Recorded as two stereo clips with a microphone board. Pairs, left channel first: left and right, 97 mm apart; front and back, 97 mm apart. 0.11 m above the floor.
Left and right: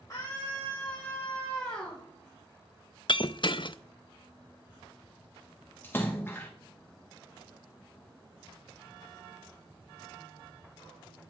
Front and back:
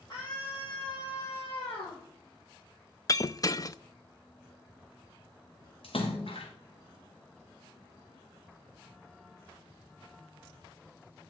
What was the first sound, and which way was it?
A scream, 40° left.